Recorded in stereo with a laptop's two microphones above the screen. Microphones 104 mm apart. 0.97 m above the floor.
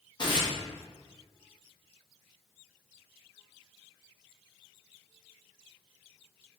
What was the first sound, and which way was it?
Tearing paper, 45° left (ahead or behind).